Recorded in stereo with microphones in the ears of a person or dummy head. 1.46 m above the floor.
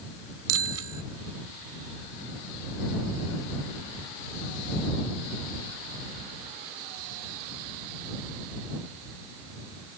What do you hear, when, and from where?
0.5 s a bicycle bell: 80° right